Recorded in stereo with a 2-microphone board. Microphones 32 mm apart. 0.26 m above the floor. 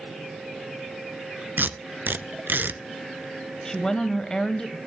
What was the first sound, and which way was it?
Tape being pulled, 85° right.